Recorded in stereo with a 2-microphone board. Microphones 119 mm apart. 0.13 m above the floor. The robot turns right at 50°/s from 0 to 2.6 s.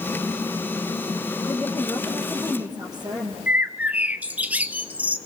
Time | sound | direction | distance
1.5 | a woman speaking | 160° left | 4.5 m
3.5 | a bird | 10° right (ahead or behind) | 1.0 m